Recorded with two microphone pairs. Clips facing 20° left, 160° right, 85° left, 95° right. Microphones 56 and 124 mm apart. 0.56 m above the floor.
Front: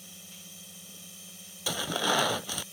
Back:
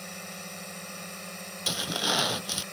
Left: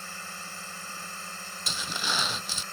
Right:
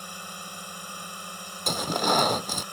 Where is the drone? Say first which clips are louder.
Back 11 dB, right 2 dB; 170° right.